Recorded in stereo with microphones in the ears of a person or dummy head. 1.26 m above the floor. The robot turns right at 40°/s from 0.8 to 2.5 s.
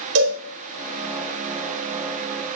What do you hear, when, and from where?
0.1 s a cowbell: 75° right (ahead or behind), 4 m